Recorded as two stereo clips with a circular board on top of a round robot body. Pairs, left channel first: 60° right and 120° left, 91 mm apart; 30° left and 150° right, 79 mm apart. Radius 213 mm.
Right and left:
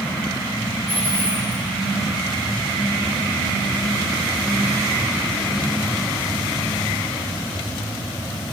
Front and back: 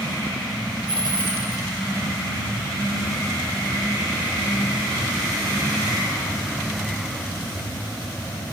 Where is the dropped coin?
165° right, 2 m.